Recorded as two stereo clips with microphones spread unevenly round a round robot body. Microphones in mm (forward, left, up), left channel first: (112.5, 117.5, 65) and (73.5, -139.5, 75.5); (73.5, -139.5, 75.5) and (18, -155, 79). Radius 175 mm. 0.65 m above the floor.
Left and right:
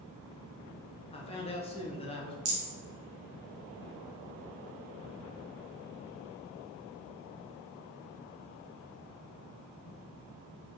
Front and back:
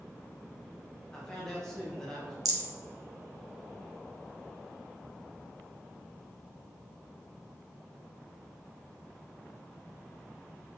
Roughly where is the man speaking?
Left.